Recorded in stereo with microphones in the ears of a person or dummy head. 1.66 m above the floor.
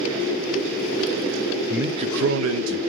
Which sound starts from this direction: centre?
A man speaking, at 1.7 s.